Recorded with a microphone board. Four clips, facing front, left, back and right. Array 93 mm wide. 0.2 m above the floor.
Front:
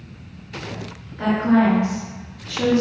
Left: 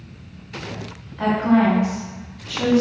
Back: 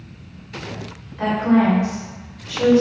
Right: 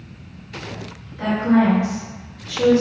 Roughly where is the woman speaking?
Behind left.